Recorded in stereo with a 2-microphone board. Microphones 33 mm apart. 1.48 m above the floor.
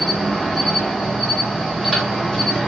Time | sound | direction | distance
0.0 | an insect | 10° right (ahead or behind) | 1.1 m